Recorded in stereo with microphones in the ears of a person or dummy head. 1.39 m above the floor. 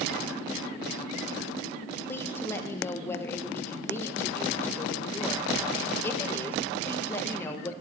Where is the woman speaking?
10° left (ahead or behind), 0.8 m.